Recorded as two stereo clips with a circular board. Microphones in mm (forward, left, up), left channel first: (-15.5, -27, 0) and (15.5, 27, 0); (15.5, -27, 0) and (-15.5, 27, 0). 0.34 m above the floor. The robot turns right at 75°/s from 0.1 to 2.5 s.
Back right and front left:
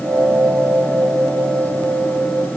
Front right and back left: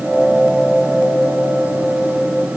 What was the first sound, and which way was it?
Only background noise.